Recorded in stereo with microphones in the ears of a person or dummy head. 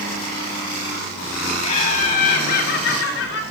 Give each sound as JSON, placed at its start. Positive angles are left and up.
{"t": 1.6, "sound": "laughter", "side_deg": 40, "distance_m": 3.5}